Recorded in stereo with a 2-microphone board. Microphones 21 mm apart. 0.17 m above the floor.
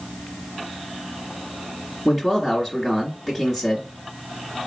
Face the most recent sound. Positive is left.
turn(degrees=-5)  # may be behind; listen again after turning